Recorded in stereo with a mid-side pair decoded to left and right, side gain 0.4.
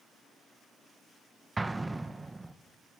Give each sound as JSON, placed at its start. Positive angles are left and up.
{"t": 1.6, "sound": "an explosion", "azimuth_deg": -20, "distance_m": 1.5}